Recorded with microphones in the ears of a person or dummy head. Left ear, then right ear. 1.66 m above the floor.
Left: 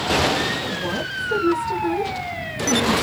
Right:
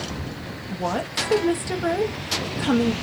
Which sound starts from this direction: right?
A woman speaking, at 0.7 s.